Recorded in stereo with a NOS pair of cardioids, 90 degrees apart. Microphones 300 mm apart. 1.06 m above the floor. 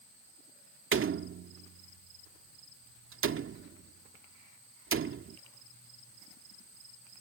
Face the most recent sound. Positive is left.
turn(degrees=-40)